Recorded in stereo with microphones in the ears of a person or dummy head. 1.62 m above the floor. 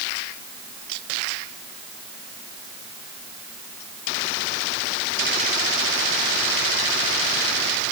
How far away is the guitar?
No guitar in this recording.